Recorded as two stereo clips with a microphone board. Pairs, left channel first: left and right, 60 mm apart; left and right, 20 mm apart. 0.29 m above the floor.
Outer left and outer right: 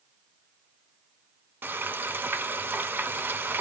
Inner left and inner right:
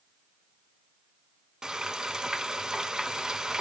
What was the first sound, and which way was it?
Frying, 35° right (ahead or behind).